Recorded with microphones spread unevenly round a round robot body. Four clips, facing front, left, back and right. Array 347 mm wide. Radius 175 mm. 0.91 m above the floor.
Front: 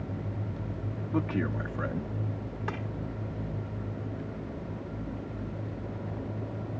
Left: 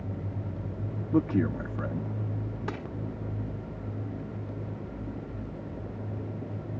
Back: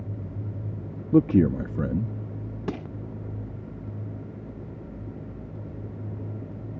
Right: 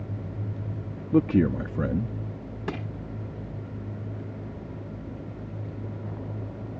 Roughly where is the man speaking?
Behind.